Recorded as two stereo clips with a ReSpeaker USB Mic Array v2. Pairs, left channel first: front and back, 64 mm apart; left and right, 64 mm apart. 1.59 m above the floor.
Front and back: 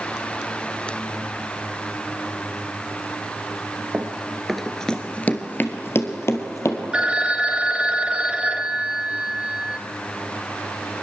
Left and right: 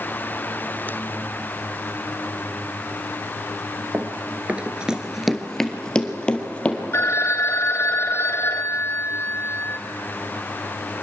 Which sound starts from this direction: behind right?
Running footsteps, at 3.9 s.